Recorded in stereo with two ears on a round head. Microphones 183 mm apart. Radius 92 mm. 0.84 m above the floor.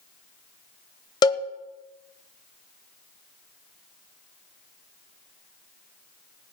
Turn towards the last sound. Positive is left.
turn(degrees=20)  # may be behind; listen again after turning